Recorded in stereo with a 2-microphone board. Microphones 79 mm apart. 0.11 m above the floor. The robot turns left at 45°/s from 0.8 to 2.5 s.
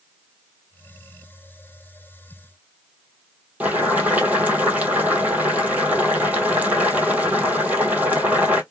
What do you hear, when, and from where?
3.6 s boiling: 20° right (ahead or behind), 1.0 m